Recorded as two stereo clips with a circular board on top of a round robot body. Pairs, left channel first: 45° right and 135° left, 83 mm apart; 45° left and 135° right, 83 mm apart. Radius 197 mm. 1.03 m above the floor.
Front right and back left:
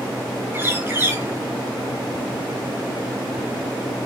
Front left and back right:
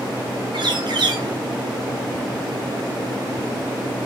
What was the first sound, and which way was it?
A bird, 160° right.